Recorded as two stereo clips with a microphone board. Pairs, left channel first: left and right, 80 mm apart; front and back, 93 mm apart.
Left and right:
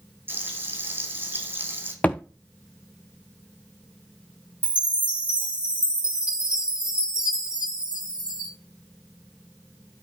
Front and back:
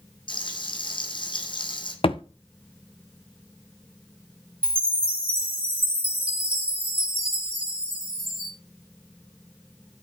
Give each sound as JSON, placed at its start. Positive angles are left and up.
{"t": 0.3, "sound": "frying", "azimuth_deg": -25, "distance_m": 6.5}
{"t": 2.0, "sound": "a thud", "azimuth_deg": 15, "distance_m": 1.4}
{"t": 4.6, "sound": "a chime", "azimuth_deg": -165, "distance_m": 2.0}